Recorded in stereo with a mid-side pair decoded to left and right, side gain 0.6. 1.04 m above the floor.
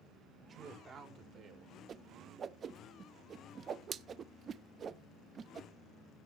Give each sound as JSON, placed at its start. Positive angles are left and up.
{"t": 0.4, "sound": "a woman speaking", "azimuth_deg": -35, "distance_m": 4.0}
{"t": 1.9, "sound": "a whoosh", "azimuth_deg": -40, "distance_m": 0.7}